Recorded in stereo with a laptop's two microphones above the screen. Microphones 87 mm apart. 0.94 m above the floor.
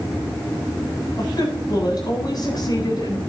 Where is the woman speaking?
50° left (ahead or behind), 8 m.